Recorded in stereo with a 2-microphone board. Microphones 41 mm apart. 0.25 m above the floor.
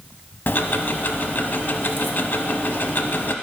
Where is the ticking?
55° left (ahead or behind), 0.6 m.